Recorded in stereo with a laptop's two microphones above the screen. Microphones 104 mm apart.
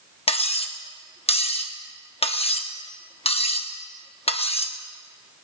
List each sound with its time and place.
0.3 s cutlery clinking: 70° left (ahead or behind), 0.8 m